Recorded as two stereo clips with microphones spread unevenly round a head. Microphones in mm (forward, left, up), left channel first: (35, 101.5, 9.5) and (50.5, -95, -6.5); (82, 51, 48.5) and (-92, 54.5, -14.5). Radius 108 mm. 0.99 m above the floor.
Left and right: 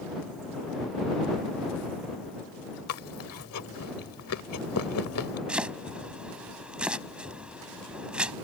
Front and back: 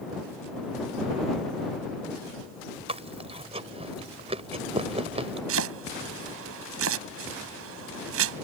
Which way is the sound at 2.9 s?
120° left.